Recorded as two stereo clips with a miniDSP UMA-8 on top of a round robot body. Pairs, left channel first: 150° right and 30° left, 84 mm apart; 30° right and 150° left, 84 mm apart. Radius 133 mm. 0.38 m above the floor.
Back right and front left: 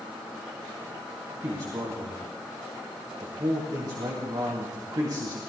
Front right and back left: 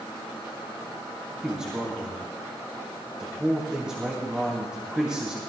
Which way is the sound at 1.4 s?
70° left.